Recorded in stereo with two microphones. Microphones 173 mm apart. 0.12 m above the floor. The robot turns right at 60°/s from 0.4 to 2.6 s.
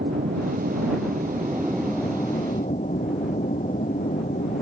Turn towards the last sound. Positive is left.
turn(degrees=50)  # may be behind; listen again after turning